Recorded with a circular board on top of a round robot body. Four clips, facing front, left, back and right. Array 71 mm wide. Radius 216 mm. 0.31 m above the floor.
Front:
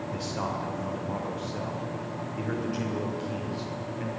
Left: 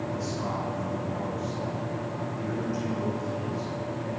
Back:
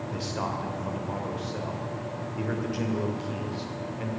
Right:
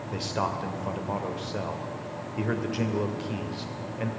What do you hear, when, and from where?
0.1 s a man speaking: 95° right, 2.5 m